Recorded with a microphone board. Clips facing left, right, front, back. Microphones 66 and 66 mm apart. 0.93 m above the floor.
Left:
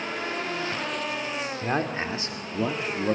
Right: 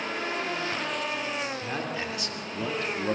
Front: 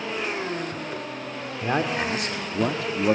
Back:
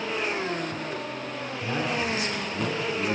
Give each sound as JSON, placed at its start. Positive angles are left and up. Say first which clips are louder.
{"t": 1.6, "sound": "a man speaking", "louder": "left 5 dB, front 4 dB", "azimuth_deg": 40, "distance_m": 2.5}